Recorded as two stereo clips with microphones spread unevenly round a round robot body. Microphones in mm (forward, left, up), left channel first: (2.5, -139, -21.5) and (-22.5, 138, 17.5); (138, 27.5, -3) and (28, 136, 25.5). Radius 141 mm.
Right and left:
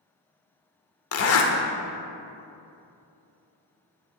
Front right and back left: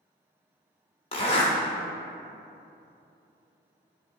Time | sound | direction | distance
1.1 | a zipper | 85° right | 0.6 m